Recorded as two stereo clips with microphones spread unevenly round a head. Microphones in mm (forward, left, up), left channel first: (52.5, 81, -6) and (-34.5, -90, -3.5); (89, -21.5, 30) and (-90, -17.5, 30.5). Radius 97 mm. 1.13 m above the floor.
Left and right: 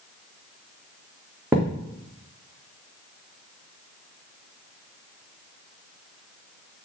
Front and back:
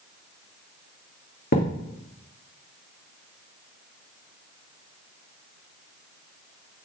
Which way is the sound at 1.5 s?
40° right.